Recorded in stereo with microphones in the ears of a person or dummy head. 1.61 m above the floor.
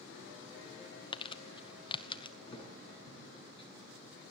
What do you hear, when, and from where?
1.1 s crumpling: 25° left (ahead or behind), 0.9 m
2.5 s a thud: 35° left (ahead or behind), 6.5 m